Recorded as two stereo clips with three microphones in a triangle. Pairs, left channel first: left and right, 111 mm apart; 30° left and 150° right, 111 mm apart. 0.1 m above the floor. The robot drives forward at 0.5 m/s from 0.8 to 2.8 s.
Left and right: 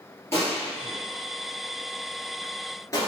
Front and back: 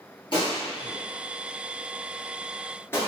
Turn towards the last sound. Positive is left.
turn(degrees=75)